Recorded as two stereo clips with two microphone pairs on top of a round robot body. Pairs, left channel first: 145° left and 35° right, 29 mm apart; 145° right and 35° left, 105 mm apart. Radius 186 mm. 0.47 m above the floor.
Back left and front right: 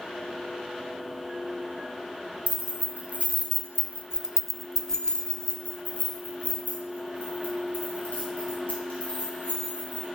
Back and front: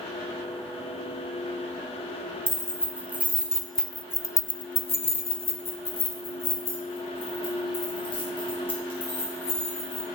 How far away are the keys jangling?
About 1.2 m.